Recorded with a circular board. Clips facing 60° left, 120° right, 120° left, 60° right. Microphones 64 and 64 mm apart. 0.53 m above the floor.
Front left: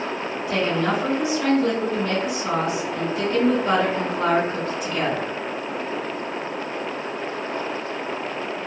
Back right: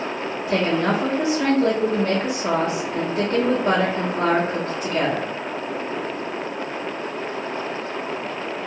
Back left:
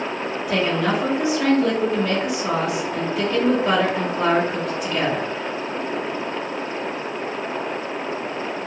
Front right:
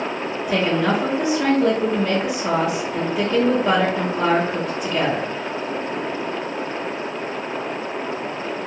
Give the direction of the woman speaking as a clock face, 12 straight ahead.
4 o'clock.